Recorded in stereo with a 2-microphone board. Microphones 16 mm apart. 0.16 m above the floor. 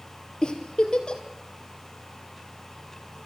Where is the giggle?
55° left (ahead or behind), 3 m.